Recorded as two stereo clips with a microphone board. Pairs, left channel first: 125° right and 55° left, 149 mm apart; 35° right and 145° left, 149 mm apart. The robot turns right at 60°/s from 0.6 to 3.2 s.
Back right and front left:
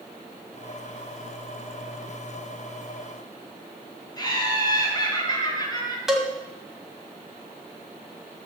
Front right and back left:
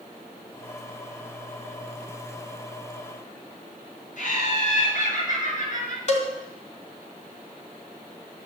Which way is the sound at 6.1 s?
30° right.